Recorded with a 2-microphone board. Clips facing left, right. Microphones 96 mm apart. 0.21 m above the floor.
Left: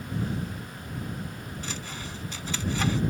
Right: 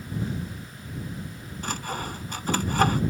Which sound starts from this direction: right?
Sawing, at 1.6 s.